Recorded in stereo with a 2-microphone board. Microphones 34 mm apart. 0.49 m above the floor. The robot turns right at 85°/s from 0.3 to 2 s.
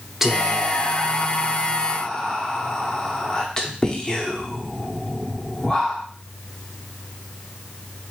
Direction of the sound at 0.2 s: 10° right (ahead or behind).